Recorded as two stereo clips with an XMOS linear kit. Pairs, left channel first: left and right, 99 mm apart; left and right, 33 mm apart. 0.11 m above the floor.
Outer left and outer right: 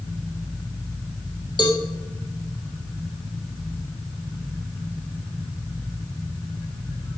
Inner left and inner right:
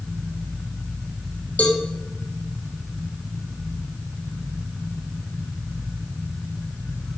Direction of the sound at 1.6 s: 50° left (ahead or behind).